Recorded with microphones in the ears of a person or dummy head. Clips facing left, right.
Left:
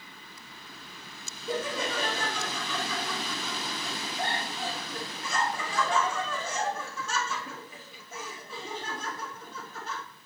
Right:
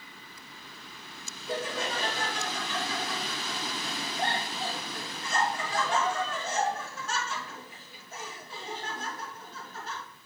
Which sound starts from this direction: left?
Laughter, at 1.5 s.